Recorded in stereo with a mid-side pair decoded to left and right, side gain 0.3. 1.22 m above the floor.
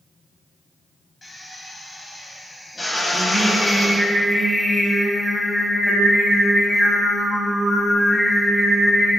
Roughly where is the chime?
I don't hear a chime.